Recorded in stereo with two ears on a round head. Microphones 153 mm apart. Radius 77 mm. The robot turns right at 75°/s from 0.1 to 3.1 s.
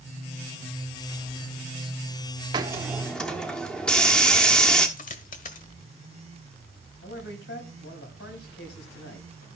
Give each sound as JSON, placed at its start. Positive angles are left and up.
{"t": 2.5, "sound": "a hiss", "azimuth_deg": -35, "distance_m": 1.1}
{"t": 5.0, "sound": "a dropped coin", "side_deg": 50, "distance_m": 1.3}
{"t": 7.0, "sound": "a man speaking", "side_deg": 70, "distance_m": 4.5}